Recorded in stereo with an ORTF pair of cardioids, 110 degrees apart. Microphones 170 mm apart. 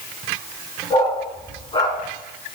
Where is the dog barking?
35° left, 6.5 m; by 2.0 s 30° left, 6.5 m.